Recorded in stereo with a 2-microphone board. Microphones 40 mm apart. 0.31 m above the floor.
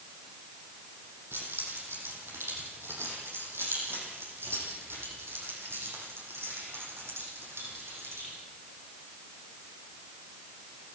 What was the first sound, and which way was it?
Keys jangling, 75° right (ahead or behind).